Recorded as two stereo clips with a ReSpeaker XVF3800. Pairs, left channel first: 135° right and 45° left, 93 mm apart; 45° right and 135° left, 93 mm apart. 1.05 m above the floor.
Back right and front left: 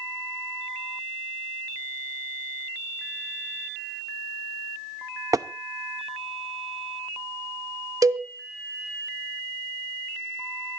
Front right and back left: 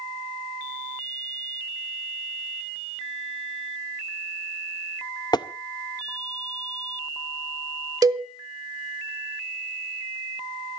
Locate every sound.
5.3 s tapping: 5° right, 0.6 m
8.0 s a cowbell: 90° left, 1.0 m